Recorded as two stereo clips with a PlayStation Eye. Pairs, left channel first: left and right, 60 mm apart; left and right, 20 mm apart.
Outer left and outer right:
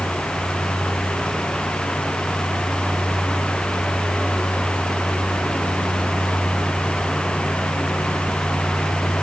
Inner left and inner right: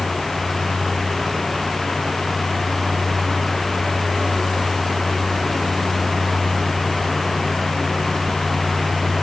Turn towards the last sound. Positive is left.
No sound to turn to.